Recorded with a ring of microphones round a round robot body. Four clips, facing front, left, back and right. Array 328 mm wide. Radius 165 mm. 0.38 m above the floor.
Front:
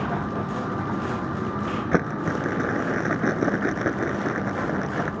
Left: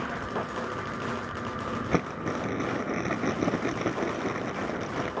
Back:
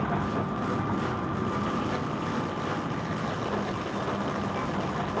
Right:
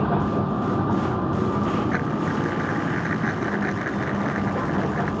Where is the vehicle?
85° right; by 5.2 s 80° right.